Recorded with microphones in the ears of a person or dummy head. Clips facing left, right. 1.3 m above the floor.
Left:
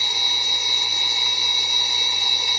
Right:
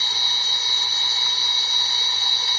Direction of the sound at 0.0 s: 10° left (ahead or behind).